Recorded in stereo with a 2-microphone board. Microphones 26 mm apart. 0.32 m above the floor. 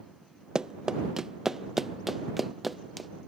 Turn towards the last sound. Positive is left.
turn(degrees=0)  # may be behind; listen again after turning